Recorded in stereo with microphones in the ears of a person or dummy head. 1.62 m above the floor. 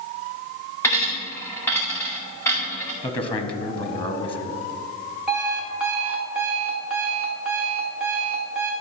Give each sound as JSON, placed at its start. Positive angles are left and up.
{"t": 0.8, "sound": "a dropped coin", "side_deg": 20, "distance_m": 2.0}
{"t": 3.0, "sound": "a man speaking", "side_deg": 25, "distance_m": 1.0}
{"t": 5.3, "sound": "an alarm clock", "side_deg": 0, "distance_m": 1.5}